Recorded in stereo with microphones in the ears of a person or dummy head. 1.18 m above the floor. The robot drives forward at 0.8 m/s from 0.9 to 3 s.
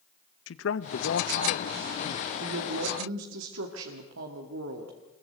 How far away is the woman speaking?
About 2 m.